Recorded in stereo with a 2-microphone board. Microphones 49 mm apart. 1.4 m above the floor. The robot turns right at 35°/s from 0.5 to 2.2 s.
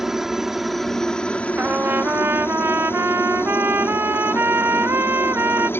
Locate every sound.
0.0 s a helicopter: 5° right; by 5.8 s 55° left
1.6 s a trumpet: 35° right (ahead or behind); by 5.7 s 50° right (ahead or behind)